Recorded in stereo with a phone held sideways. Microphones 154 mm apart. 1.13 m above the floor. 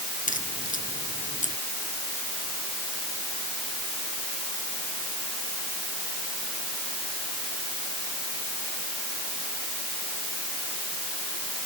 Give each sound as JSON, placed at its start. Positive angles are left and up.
{"t": 0.3, "sound": "a crack", "side_deg": 60}